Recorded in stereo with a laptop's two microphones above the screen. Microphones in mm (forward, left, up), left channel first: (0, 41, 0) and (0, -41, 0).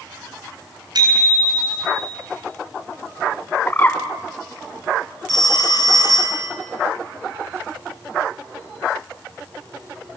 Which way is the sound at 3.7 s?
25° left (ahead or behind).